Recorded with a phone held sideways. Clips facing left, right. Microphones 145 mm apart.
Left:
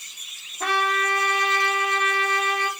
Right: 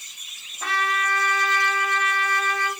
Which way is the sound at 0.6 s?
60° left (ahead or behind).